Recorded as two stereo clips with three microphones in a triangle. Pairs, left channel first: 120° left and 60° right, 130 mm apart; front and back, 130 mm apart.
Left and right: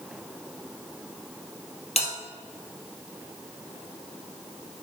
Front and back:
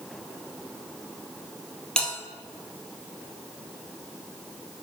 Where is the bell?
85° left, 2 m.